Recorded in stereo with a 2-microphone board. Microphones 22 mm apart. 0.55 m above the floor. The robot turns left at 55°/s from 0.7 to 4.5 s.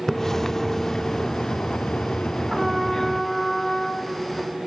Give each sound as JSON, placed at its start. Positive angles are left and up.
{"t": 0.1, "sound": "a splash", "azimuth_deg": 160, "distance_m": 0.6}
{"t": 2.5, "sound": "a trumpet", "azimuth_deg": -155, "distance_m": 1.2}